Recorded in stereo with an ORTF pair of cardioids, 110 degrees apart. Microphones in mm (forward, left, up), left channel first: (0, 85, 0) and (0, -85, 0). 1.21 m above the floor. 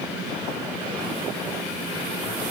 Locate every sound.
Only background noise.